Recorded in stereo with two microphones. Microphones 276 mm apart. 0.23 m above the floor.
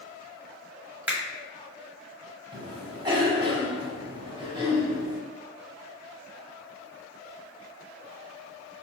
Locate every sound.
1.1 s a finger snap: 5° right (ahead or behind), 0.9 m
2.5 s a cough: 20° right (ahead or behind), 1.0 m